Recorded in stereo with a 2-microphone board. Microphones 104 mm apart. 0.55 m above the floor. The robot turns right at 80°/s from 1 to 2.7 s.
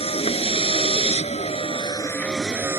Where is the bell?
No bell in this recording.